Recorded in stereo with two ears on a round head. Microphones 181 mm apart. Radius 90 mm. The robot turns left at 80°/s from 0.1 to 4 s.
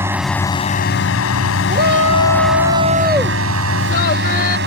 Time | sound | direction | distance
0.0 | a drone | 10° right (ahead or behind) | ?
1.7 | a shout | 45° right | ?